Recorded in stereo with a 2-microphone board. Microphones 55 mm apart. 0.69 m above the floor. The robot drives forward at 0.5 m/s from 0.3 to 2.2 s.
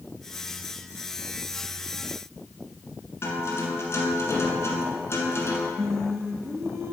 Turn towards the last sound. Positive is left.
turn(degrees=-60)  # may be behind; listen again after turning